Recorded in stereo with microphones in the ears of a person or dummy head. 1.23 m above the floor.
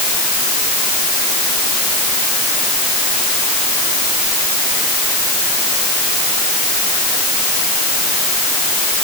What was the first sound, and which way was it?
Only background noise.